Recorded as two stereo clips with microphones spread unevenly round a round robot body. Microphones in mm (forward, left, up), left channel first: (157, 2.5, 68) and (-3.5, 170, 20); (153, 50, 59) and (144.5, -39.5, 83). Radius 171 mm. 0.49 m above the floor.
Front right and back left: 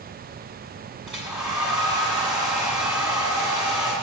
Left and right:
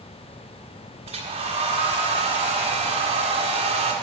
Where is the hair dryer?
140° right, 1.3 m.